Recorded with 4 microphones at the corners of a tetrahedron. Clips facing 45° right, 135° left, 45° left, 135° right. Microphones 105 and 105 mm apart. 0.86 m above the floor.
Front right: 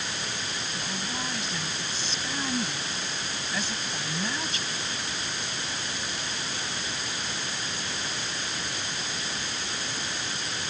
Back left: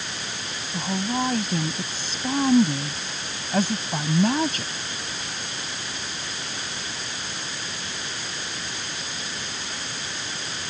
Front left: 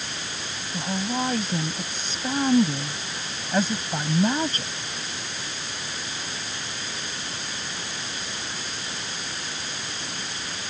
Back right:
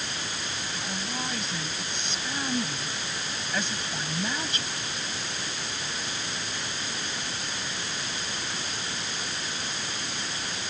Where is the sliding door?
I don't hear a sliding door.